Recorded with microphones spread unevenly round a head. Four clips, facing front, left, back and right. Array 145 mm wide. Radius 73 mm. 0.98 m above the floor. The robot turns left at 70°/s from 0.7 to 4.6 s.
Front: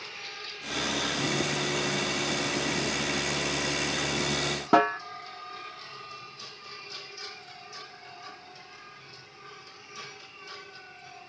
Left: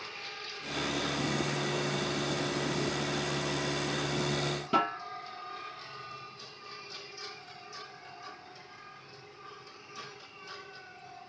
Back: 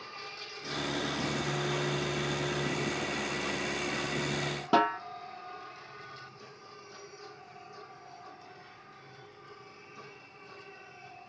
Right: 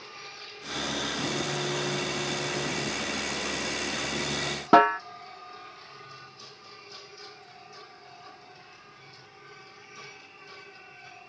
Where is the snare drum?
70° right, 0.5 m.